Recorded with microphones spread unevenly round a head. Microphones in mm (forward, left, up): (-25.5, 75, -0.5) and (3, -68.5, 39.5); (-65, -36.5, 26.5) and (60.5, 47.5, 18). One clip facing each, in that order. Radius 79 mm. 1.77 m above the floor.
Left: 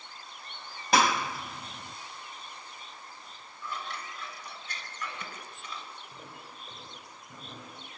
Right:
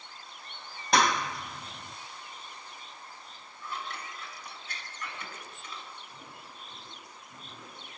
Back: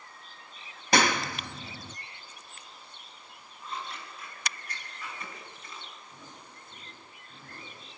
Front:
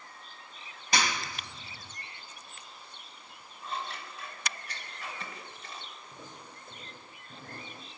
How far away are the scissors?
About 6 m.